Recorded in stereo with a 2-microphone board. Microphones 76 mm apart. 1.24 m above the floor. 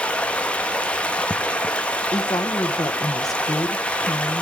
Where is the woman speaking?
50° left (ahead or behind), 1.2 m.